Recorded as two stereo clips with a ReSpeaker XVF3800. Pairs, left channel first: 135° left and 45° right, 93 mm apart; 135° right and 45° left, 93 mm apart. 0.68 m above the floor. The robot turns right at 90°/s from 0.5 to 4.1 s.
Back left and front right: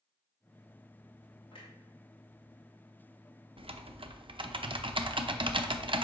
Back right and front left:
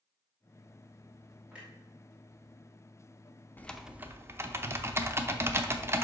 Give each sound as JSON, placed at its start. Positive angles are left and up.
{"t": 1.5, "sound": "a clunk", "azimuth_deg": 115, "distance_m": 2.0}
{"t": 3.6, "sound": "typing on a keyboard", "azimuth_deg": -65, "distance_m": 0.5}